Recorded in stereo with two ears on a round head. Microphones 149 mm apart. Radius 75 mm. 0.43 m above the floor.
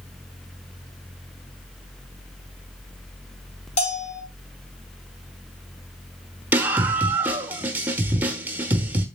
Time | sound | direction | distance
3.8 | a bell | 45° left (ahead or behind) | 4 m
6.5 | a scream | 10° right (ahead or behind) | 0.9 m